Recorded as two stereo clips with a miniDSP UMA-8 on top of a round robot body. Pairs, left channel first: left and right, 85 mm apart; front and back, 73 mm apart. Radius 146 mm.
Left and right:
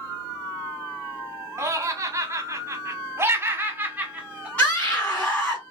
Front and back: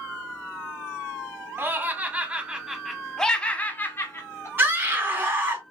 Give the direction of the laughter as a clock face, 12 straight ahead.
4 o'clock.